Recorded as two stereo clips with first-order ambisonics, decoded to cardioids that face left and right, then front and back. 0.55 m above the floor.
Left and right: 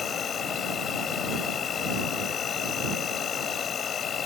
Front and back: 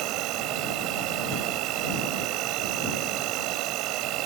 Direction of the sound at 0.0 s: 150° left.